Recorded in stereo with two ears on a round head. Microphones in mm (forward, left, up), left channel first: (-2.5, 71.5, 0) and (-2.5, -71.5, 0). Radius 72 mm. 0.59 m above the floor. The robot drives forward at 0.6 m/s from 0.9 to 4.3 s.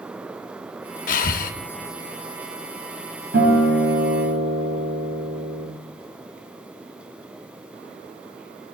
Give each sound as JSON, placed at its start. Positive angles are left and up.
{"t": 1.1, "sound": "breathing", "side_deg": 50, "distance_m": 0.6}
{"t": 3.3, "sound": "a guitar", "side_deg": -60, "distance_m": 3.5}